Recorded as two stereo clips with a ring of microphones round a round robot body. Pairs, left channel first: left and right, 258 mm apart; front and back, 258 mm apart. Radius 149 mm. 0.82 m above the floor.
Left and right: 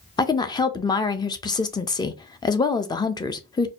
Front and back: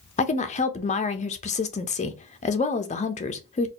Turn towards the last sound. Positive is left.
turn(degrees=30)